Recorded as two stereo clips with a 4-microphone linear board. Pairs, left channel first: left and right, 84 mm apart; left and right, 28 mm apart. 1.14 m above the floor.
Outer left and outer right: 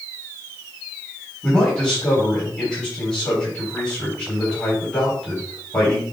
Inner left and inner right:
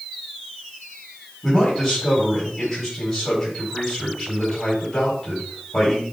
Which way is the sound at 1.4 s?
10° left (ahead or behind).